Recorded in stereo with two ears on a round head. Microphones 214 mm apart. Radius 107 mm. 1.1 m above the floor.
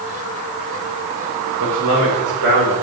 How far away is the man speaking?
About 3.5 m.